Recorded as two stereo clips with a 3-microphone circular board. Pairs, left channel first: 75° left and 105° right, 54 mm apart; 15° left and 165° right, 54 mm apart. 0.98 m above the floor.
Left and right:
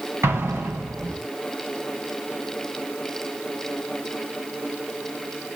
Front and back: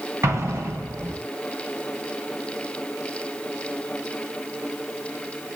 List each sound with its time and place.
0.2 s an explosion: 140° right, 5.5 m